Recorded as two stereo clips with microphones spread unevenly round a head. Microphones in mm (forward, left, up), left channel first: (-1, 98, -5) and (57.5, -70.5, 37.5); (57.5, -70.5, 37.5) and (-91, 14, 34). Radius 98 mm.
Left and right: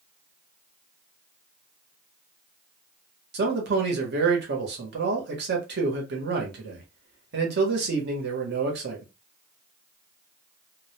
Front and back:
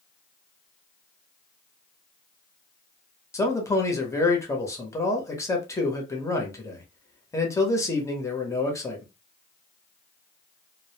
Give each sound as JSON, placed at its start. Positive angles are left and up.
{"t": 3.3, "sound": "a man speaking", "azimuth_deg": -100, "distance_m": 0.9}